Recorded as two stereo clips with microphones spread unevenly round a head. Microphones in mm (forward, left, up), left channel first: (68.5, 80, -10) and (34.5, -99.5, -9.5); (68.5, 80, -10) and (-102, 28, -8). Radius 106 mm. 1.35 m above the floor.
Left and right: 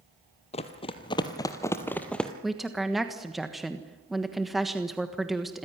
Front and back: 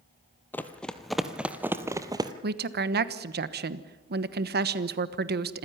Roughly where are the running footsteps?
Left.